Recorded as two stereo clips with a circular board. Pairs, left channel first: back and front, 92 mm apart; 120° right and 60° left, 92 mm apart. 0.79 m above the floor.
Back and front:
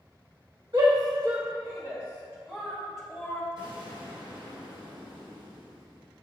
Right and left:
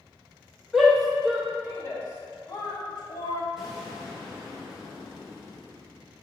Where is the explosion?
25° right, 1.9 m.